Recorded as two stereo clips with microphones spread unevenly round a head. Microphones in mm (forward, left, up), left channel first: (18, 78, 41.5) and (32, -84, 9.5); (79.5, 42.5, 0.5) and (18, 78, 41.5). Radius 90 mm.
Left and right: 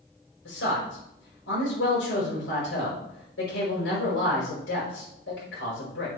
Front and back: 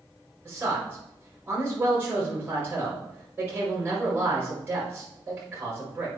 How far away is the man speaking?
About 5 m.